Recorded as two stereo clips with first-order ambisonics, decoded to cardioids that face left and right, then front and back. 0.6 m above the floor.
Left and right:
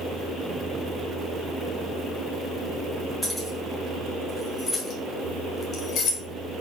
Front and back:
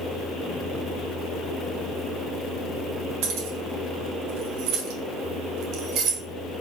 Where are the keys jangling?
175° left, 3 m; by 6.2 s 135° left, 1.7 m.